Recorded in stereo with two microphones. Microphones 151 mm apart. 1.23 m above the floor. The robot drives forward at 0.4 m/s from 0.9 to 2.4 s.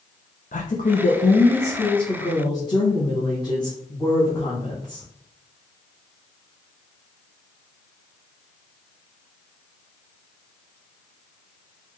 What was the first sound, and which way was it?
A woman speaking, 65° left (ahead or behind).